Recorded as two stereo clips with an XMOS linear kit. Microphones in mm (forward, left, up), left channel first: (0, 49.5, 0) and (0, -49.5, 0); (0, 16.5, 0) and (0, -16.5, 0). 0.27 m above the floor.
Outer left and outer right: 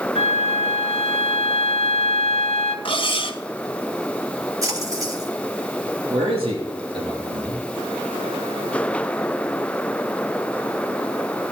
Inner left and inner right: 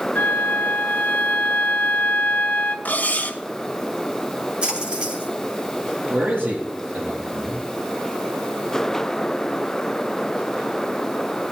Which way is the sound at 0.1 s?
75° left (ahead or behind).